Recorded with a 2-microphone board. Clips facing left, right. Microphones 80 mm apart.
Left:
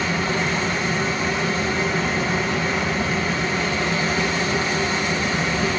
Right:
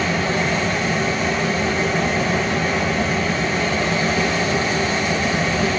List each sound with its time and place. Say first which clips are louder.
0.0 s running water: right 2 dB; 90° right, 1.6 m